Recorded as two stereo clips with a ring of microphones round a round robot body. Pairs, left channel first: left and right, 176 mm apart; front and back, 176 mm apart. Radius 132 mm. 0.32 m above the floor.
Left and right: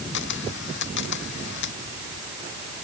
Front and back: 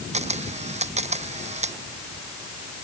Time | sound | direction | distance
0.1 | a camera shutter | 130° left | ?